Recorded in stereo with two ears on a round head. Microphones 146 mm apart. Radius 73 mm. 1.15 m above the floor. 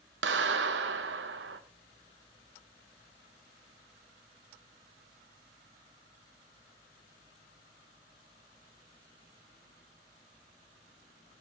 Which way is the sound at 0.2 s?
80° right.